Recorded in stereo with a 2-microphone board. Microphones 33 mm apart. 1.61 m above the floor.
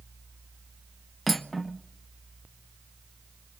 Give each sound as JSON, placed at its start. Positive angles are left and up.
{"t": 1.3, "sound": "cutlery clinking", "side_deg": 5, "distance_m": 0.8}